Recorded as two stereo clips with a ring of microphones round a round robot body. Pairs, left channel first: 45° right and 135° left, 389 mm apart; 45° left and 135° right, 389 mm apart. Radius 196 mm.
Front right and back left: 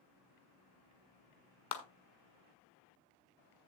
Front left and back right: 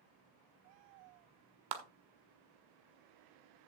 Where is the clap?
100° right, 1.7 m.